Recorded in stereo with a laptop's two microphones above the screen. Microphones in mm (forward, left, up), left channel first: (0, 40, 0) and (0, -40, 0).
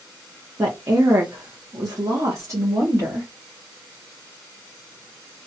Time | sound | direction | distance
0.6 | a woman speaking | 40° right (ahead or behind) | 0.9 m